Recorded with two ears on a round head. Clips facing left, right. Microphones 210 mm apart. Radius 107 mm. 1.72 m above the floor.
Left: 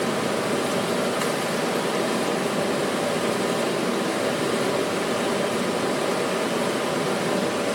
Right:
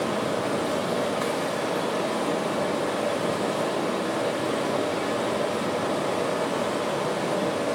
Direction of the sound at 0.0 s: 35° left (ahead or behind).